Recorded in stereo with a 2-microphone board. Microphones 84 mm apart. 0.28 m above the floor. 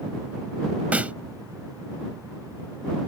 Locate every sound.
0.9 s a snare drum: 15° right (ahead or behind)